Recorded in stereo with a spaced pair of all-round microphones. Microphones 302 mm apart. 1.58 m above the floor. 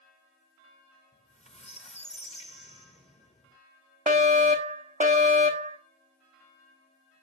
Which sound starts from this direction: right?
A fire alarm, at 4.1 s.